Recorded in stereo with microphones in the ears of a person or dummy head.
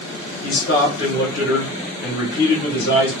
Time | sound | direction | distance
0.4 | a man speaking | 60° left (ahead or behind) | 1.5 m